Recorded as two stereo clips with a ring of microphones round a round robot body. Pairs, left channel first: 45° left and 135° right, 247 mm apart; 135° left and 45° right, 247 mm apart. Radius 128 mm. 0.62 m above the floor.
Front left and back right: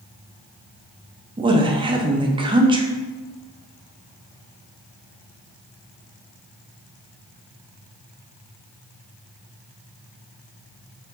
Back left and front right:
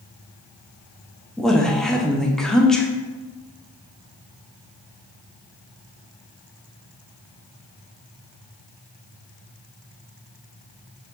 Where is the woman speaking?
140° right, 0.6 m.